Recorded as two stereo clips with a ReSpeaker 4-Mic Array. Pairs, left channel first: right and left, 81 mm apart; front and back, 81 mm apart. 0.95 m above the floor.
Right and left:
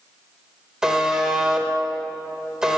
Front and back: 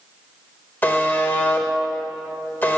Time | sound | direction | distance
0.8 | a buzzer | 20° left | 0.7 m